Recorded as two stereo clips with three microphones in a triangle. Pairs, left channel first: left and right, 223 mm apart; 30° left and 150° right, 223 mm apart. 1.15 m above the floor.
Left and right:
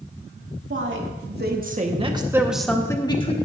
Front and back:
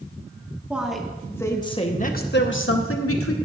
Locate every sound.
0.7 s a woman speaking: 65° right, 2.5 m; by 3.4 s 25° left, 1.8 m